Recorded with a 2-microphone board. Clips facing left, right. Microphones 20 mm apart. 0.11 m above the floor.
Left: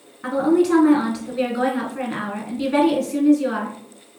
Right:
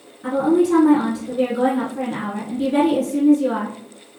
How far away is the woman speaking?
About 1.4 m.